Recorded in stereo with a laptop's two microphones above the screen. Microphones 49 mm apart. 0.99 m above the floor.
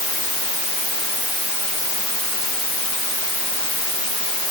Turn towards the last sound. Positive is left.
No sound to turn to.